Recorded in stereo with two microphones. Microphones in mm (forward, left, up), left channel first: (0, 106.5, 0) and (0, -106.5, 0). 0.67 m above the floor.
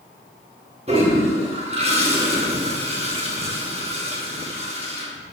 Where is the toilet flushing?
25° right (ahead or behind), 1.1 m.